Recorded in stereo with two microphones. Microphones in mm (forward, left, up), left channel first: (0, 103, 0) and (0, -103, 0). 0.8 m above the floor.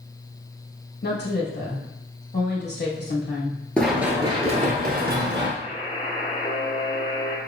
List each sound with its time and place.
1.0 s a woman speaking: 55° left (ahead or behind), 1.1 m
3.8 s running footsteps: 5° left (ahead or behind), 0.9 m; by 5.5 s 60° right (ahead or behind), 1.5 m
5.6 s a buzzer: 35° left (ahead or behind), 1.0 m